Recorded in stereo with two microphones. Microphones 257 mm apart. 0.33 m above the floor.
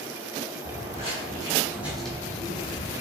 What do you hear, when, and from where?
0.6 s footsteps: 30° right (ahead or behind), 1.4 m; by 3.0 s 35° left (ahead or behind), 0.9 m